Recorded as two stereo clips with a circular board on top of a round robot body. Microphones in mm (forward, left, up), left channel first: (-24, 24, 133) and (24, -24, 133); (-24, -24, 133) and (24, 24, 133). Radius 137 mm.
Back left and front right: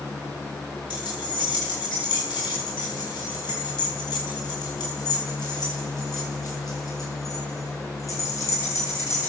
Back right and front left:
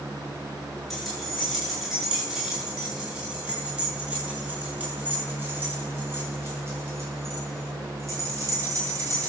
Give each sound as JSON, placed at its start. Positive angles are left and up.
{"t": 0.9, "sound": "keys jangling", "azimuth_deg": 135, "distance_m": 9.0}